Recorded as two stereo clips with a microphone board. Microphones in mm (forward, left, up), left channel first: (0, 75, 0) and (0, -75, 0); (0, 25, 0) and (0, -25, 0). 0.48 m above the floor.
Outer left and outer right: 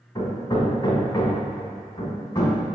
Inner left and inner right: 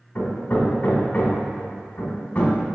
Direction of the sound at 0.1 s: 25° left (ahead or behind).